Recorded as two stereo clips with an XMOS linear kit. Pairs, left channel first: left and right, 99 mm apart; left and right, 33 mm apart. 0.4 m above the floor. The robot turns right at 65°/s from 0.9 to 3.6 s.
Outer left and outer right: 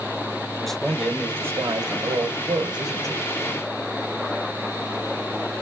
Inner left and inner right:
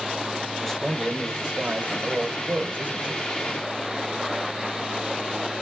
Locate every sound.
0.6 s a man speaking: 175° left, 1.3 m; by 3.3 s 30° right, 1.3 m